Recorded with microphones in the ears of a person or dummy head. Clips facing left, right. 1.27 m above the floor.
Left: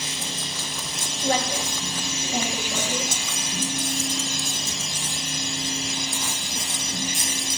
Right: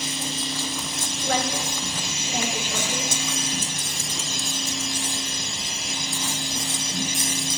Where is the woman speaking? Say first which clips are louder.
Left 1 dB; 15° left (ahead or behind), 2 m.